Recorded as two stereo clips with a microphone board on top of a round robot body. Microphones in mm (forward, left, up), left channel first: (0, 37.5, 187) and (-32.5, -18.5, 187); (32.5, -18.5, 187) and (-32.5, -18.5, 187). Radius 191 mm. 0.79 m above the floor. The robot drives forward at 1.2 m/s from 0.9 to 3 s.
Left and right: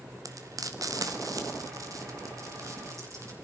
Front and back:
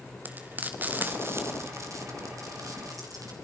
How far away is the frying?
About 2.0 m.